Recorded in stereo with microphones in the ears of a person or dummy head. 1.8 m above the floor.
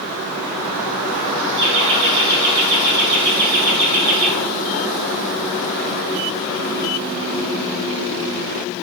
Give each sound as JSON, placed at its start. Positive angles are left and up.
{"t": 1.6, "sound": "laughter", "side_deg": -70, "distance_m": 4.5}